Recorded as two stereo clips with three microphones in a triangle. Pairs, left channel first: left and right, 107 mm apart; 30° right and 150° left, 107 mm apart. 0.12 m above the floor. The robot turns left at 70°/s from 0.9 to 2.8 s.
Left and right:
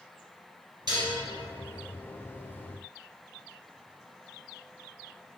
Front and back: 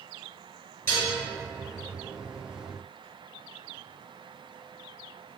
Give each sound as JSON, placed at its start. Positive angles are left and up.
{"t": 0.9, "sound": "dishes clattering", "azimuth_deg": -90, "distance_m": 1.4}